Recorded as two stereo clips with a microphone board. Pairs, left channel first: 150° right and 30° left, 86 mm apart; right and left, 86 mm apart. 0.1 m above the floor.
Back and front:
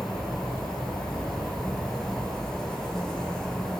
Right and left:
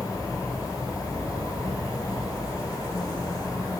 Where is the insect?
65° right, 0.8 m.